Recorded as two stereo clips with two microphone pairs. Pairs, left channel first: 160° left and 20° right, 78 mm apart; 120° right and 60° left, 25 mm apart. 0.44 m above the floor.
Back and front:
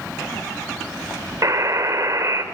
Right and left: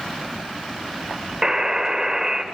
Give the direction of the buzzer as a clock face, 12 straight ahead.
12 o'clock.